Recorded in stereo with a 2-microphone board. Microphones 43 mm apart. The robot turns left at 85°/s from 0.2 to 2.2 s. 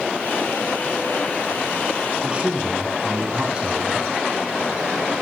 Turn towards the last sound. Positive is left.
turn(degrees=-25)  # may be behind; listen again after turning